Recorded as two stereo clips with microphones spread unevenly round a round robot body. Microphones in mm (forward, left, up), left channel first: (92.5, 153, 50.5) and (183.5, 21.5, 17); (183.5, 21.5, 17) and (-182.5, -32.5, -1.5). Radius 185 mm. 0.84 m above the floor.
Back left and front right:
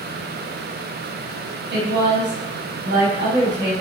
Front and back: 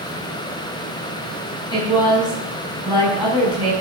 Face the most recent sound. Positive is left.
turn(degrees=-70)